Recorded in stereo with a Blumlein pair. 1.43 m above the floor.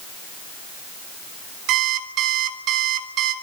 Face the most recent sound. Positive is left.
turn(degrees=-35)